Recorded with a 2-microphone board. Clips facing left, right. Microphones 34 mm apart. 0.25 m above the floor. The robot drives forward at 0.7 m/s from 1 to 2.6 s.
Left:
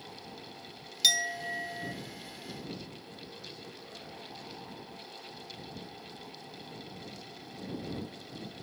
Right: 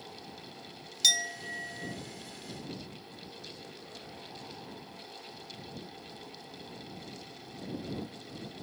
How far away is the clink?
About 0.6 m.